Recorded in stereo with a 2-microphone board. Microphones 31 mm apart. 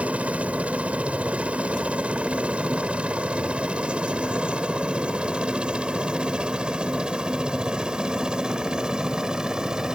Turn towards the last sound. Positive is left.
turn(degrees=-20)  # may be behind; listen again after turning